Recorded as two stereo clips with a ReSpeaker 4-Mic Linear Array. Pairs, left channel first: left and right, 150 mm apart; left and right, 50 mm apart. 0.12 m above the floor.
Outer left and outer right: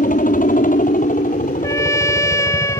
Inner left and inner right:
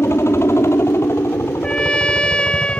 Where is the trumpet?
20° left (ahead or behind).